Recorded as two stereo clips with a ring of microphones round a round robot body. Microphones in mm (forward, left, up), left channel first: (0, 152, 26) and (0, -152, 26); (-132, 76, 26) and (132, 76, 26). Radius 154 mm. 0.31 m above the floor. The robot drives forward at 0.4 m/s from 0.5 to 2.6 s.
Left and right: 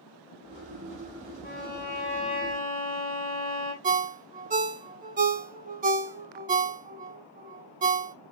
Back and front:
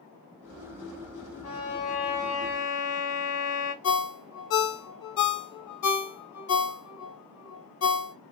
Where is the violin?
150° left, 1.4 m; by 3.7 s 160° left, 1.8 m.